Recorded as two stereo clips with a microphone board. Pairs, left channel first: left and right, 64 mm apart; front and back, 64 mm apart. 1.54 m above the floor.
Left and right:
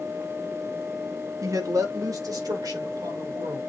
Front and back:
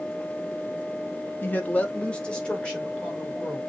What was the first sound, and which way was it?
A woman speaking, 55° right.